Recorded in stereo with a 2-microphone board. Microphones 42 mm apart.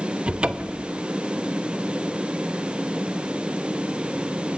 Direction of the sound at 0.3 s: 25° right (ahead or behind).